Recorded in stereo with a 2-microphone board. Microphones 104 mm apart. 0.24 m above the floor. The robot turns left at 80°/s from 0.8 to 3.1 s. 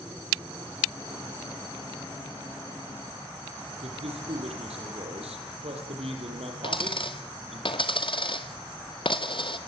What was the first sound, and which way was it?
A man speaking, 70° right (ahead or behind).